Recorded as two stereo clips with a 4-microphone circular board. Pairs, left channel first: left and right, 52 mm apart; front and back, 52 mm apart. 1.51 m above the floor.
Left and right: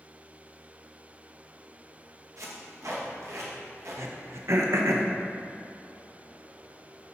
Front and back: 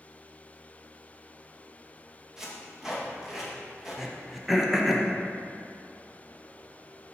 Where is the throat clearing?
95° right, 0.9 m.